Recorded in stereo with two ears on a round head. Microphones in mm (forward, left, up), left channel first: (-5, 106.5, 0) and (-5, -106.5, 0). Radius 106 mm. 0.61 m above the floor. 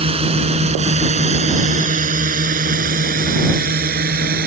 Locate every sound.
0.0 s a drone: 25° right (ahead or behind); by 4.5 s 40° right (ahead or behind)